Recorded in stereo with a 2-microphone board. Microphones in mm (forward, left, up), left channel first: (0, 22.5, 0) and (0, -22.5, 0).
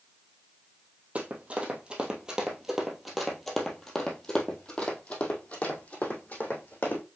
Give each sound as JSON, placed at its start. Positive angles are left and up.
{"t": 1.1, "sound": "running footsteps", "side_deg": -30, "distance_m": 1.9}